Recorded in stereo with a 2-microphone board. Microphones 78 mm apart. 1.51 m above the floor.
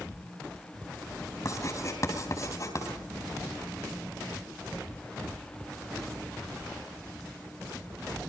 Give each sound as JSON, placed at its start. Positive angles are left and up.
{"t": 1.4, "sound": "writing", "side_deg": 45, "distance_m": 3.5}